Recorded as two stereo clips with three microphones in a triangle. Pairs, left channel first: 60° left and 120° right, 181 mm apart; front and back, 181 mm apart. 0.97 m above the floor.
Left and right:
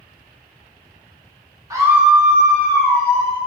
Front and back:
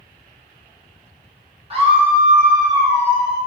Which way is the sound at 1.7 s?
170° right.